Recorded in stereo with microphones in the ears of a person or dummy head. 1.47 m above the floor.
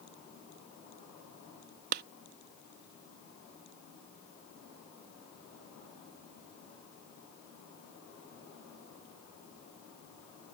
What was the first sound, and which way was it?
A clap, 55° right (ahead or behind).